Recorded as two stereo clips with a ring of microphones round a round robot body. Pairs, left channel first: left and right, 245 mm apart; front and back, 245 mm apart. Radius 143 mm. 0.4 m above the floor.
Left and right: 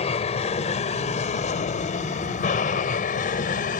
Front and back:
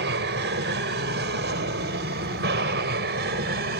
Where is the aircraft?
150° left; by 3.8 s 140° left.